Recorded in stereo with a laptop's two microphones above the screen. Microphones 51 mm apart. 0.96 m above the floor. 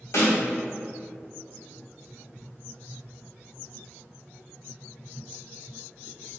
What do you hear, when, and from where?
0.1 s a snare drum: 70° left (ahead or behind), 1.6 m